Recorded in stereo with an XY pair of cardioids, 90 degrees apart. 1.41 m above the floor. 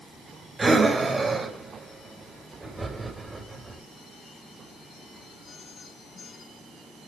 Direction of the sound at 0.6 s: 25° right.